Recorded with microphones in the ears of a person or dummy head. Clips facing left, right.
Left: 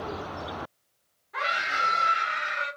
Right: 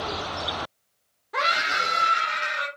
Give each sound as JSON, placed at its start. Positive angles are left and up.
{"t": 1.3, "sound": "a scream", "side_deg": -60, "distance_m": 0.5}